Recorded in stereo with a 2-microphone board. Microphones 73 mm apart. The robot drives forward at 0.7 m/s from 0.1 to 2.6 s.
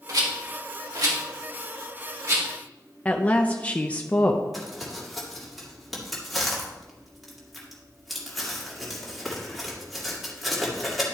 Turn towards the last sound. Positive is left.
turn(degrees=0)  # may be behind; listen again after turning